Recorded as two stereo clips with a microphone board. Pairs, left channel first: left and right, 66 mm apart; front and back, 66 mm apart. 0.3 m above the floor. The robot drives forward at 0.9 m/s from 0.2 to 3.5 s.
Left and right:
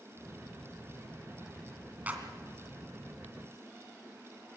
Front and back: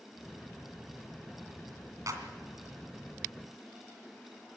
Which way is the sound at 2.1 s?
155° right.